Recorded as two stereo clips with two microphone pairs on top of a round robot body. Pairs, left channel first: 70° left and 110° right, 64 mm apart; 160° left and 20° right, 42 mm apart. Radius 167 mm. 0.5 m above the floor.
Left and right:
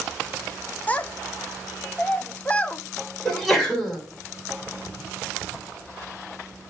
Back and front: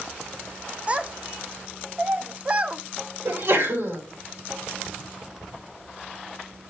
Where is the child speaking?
5° left, 0.8 m.